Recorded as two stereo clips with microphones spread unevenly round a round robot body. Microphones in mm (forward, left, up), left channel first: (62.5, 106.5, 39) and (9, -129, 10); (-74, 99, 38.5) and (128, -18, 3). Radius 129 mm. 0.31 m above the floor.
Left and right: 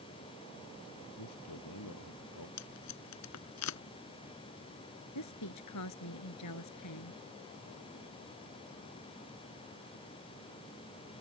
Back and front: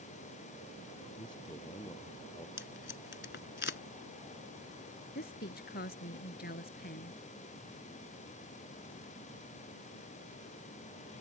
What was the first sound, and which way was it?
A man speaking, 80° left.